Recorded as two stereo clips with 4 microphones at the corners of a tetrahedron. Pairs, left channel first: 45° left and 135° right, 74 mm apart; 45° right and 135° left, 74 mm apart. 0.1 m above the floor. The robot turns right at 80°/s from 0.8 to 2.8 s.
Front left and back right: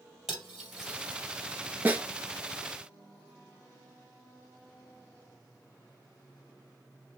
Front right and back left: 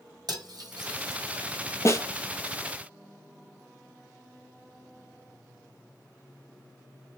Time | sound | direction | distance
0.3 | cutlery clinking | 145° left | 2.0 m
1.9 | a snare drum | 75° right | 0.6 m